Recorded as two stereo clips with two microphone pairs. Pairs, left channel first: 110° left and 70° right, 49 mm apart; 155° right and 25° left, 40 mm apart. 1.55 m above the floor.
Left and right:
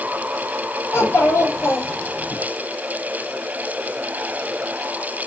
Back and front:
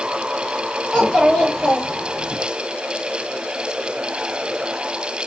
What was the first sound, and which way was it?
A child speaking, 135° left.